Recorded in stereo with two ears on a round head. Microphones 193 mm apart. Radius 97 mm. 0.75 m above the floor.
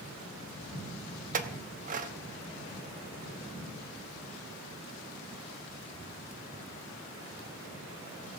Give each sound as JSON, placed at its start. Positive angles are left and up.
{"t": 1.3, "sound": "a clink", "side_deg": -40, "distance_m": 0.7}